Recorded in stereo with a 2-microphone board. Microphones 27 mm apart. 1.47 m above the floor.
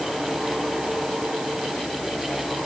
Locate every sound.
Only background noise.